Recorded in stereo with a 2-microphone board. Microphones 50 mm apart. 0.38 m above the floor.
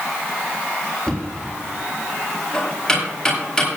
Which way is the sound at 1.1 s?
10° left (ahead or behind).